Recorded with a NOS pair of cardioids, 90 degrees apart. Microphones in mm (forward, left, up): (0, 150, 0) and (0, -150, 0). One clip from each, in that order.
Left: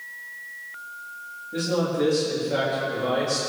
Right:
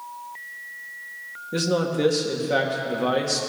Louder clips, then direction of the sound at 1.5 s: Right 1 dB; 55° right.